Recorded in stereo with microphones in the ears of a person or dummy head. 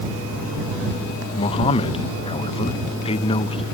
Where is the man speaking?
25° left (ahead or behind).